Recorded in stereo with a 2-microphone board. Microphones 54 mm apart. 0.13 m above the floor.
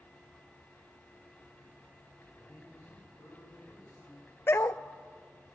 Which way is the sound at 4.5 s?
55° left (ahead or behind).